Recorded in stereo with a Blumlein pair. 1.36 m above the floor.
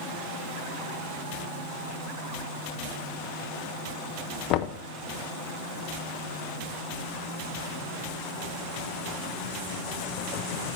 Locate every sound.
4.5 s knocking: 40° left, 0.6 m